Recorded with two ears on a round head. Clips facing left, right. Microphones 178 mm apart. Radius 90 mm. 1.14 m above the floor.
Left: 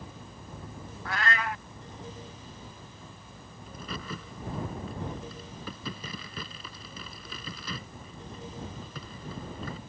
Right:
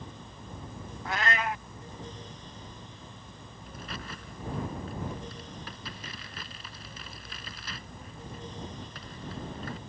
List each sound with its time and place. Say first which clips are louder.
1.1 s a cat meowing: right 1 dB; 15° right (ahead or behind)
3.7 s a crack: left 3 dB; 85° left